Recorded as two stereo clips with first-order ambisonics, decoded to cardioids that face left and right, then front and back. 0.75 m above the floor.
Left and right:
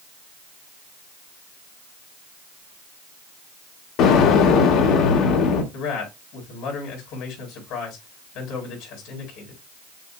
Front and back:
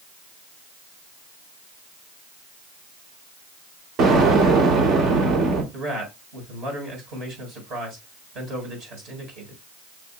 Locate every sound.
4.0 s an explosion: 125° left, 1.3 m
5.7 s a man speaking: 125° left, 4.5 m